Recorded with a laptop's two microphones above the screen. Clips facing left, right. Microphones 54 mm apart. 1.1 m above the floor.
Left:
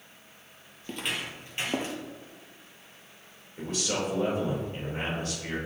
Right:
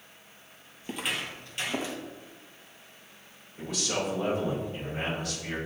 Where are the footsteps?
15° right (ahead or behind), 1.5 m; by 2.0 s 50° left (ahead or behind), 1.7 m.